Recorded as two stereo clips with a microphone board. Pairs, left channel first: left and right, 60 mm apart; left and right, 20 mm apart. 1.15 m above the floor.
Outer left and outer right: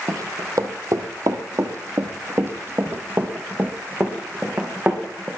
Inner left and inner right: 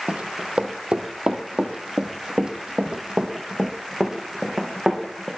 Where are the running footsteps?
65° right (ahead or behind), 2.5 m; by 5.3 s 20° right (ahead or behind), 4 m.